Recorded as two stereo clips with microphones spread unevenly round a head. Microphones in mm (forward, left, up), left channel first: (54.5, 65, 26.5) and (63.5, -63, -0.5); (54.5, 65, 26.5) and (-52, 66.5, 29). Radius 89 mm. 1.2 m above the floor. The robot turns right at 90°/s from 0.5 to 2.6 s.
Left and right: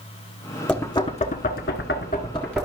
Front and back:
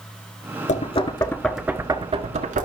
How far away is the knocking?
About 1.6 m.